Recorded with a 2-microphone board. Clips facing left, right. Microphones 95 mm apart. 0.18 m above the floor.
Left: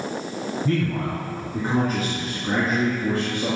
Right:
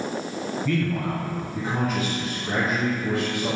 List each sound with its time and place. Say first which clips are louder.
0.7 s a man speaking: left 1 dB; 40° left (ahead or behind), 1.9 m